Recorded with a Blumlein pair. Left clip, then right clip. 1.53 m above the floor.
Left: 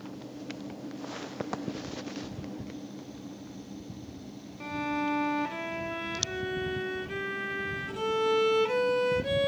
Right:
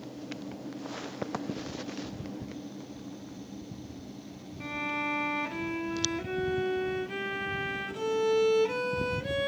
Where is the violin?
5° left, 0.6 m.